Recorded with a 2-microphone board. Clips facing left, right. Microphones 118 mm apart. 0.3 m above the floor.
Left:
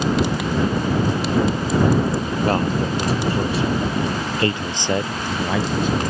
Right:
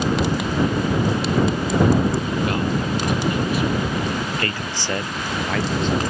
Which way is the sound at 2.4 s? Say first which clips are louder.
Left 2 dB; 35° left (ahead or behind).